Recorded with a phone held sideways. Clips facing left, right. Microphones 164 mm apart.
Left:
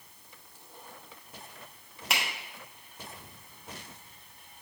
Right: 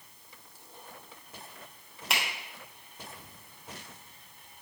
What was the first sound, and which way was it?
A finger snap, centre (ahead or behind).